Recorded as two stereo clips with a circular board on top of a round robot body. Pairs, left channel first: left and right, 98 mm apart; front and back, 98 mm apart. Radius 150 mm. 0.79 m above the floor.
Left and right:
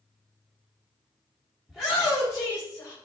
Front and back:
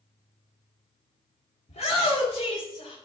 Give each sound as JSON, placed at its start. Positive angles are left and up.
{"t": 1.7, "sound": "a shout", "azimuth_deg": 0, "distance_m": 2.0}